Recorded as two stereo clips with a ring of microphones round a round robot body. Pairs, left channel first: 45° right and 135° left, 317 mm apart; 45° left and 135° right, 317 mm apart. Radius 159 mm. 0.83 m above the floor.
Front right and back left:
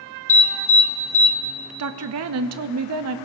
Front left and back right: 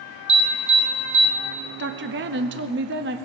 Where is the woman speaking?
175° left, 0.7 m.